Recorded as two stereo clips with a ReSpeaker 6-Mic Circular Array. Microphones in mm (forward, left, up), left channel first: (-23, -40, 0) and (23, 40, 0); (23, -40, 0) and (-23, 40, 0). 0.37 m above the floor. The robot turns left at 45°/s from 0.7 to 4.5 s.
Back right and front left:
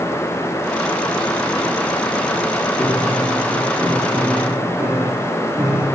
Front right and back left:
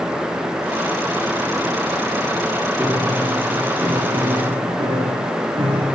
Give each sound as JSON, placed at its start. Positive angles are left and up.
{"t": 2.8, "sound": "a piano", "azimuth_deg": -145, "distance_m": 2.5}